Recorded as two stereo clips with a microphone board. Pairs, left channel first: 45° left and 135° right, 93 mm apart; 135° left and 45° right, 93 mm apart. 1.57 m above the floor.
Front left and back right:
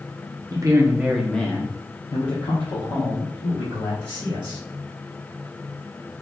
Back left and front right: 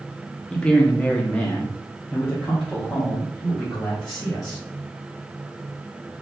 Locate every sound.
0.5 s a man speaking: 150° right, 0.6 m; by 4.6 s 50° left, 2 m